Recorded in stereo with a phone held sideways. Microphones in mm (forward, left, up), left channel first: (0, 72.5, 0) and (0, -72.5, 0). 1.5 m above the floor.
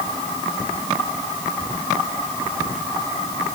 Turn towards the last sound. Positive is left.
No sound to turn to.